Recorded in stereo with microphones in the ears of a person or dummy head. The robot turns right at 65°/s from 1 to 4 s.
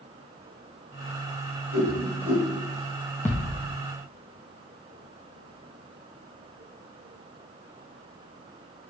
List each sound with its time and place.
1.7 s a whoosh: 70° right (ahead or behind), 3.5 m; by 2.5 s 25° right (ahead or behind), 3.5 m
3.2 s a thud: 10° left (ahead or behind), 0.7 m; by 3.7 s 20° left (ahead or behind), 0.7 m